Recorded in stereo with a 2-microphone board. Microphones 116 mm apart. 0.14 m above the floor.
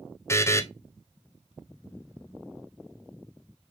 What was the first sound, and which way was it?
A buzzer, 25° left (ahead or behind).